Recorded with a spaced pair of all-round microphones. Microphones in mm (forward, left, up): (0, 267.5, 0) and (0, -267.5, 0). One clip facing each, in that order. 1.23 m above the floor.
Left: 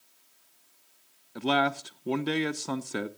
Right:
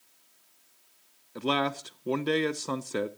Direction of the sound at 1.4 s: 5° left (ahead or behind).